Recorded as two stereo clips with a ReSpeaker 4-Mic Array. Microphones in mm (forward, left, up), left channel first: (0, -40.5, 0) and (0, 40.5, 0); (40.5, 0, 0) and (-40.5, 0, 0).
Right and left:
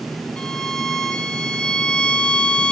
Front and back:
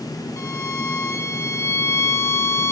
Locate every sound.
0.4 s a violin: 20° right, 0.6 m